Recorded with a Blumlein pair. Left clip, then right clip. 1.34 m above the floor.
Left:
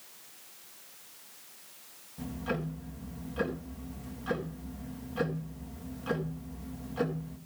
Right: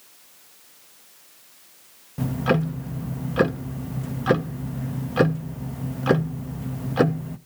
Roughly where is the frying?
No frying in this recording.